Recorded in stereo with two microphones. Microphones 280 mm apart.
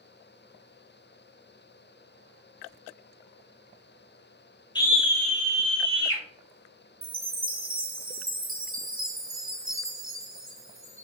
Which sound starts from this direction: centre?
A scream, at 4.8 s.